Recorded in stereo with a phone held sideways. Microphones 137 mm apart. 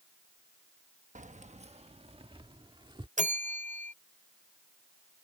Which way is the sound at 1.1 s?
65° right (ahead or behind).